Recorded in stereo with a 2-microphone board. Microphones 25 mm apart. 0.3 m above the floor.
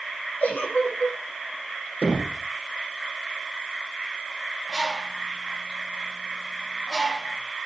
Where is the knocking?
50° left (ahead or behind), 4 m.